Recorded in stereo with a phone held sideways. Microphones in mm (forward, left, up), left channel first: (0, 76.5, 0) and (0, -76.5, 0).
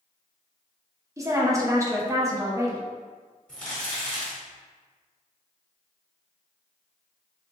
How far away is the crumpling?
About 1.6 m.